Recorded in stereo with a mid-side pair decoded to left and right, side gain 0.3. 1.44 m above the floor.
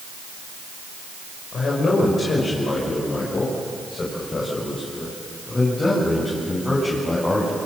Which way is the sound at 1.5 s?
70° left.